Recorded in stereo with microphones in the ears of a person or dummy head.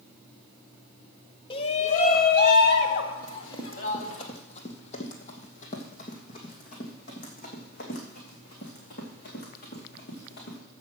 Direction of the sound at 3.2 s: 25° left (ahead or behind).